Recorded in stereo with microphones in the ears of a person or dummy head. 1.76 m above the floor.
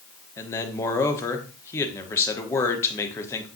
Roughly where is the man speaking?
Centre.